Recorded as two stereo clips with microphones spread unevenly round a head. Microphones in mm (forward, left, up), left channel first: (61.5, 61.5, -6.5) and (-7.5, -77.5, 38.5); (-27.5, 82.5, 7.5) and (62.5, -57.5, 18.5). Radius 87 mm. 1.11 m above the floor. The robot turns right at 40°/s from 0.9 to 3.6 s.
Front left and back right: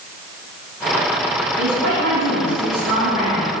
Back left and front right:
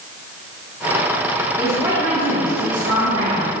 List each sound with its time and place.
1.6 s a woman speaking: 135° right, 1.5 m; by 3.5 s 55° right, 1.5 m